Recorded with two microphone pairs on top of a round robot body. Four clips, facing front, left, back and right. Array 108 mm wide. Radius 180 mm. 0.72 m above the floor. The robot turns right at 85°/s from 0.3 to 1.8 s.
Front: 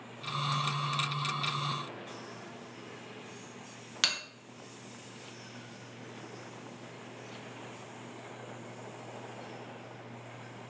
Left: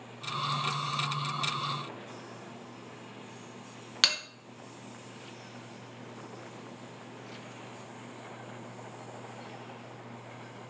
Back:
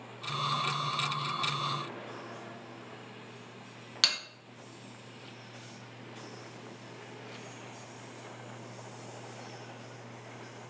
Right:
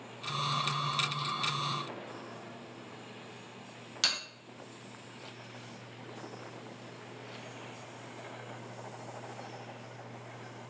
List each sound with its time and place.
4.0 s a bell: 95° left, 0.9 m